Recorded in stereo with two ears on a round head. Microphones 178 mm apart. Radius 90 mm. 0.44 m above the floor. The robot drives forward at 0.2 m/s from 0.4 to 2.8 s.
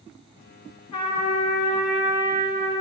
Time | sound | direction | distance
0.9 | a trumpet | 25° left (ahead or behind) | 1.9 m